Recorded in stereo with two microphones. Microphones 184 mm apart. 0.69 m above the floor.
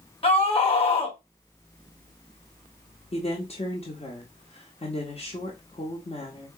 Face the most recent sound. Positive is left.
turn(degrees=40)  # may be behind; listen again after turning